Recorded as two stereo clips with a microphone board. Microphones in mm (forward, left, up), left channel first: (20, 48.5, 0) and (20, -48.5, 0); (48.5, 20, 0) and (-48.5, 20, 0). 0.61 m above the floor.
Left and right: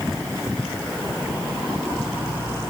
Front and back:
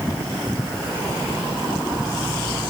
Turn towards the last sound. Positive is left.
No sound to turn to.